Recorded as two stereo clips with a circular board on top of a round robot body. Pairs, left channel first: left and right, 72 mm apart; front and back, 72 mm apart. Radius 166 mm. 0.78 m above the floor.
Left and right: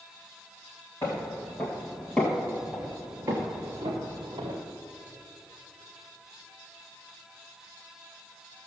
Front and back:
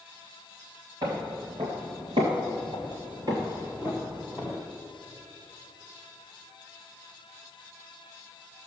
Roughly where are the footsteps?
Behind left.